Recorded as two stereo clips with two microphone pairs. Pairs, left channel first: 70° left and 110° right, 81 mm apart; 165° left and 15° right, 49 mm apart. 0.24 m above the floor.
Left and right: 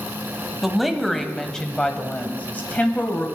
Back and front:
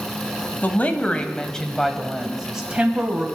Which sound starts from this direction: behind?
A woman speaking, at 0.6 s.